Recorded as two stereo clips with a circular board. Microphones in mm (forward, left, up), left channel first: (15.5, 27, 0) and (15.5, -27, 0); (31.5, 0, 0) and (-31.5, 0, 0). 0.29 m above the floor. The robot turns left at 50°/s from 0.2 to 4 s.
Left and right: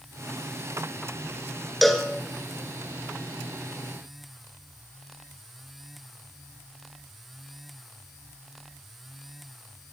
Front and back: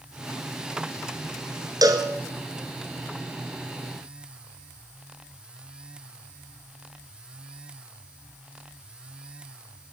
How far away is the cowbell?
About 2.5 m.